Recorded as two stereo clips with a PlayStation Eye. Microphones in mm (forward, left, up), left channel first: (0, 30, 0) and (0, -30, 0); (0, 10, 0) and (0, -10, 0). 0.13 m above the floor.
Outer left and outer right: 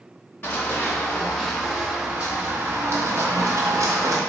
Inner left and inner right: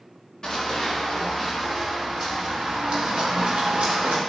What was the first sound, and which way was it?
Running footsteps, 35° left (ahead or behind).